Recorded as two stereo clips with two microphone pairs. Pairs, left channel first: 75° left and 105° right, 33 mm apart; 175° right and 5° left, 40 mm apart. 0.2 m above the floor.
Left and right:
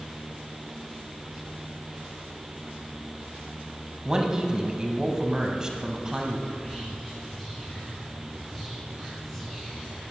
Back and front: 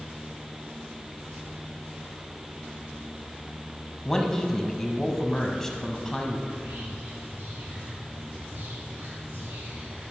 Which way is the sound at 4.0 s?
110° right.